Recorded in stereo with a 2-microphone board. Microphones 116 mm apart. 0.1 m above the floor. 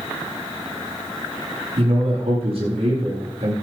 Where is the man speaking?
60° right (ahead or behind), 8.5 m.